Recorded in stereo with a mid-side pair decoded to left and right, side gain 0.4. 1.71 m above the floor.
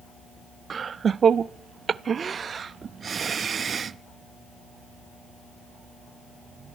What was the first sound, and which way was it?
Laughter, 50° right.